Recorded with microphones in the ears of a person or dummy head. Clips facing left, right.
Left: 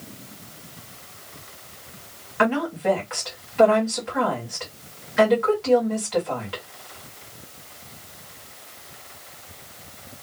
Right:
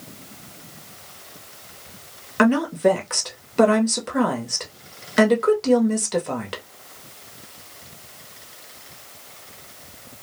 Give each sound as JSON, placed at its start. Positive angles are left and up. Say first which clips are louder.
{"t": 2.4, "sound": "a woman speaking", "louder": "right 5 dB", "side_deg": -55, "distance_m": 1.0}